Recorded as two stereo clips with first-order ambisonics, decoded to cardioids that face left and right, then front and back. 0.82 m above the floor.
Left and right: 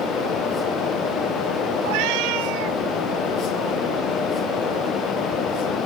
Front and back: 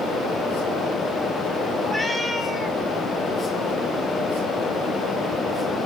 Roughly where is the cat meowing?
Right.